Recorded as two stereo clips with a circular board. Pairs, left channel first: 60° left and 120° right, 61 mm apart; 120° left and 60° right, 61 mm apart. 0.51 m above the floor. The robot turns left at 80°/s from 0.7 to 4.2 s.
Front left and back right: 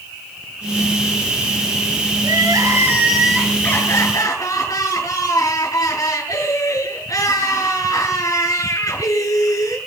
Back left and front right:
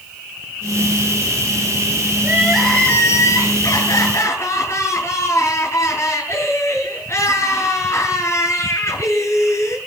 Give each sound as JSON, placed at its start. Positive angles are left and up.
{"t": 2.2, "sound": "crying", "azimuth_deg": -120, "distance_m": 8.5}